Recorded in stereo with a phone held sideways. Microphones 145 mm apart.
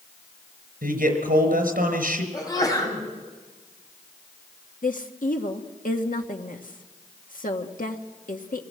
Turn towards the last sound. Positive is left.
turn(degrees=70)  # may be behind; listen again after turning